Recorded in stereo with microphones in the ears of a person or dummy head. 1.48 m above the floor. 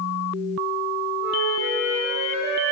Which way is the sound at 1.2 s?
15° right (ahead or behind).